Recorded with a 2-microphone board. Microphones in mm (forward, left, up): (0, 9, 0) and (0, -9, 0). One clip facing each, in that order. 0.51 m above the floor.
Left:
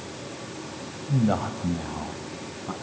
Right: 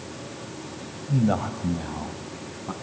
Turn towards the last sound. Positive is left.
turn(degrees=5)  # may be behind; listen again after turning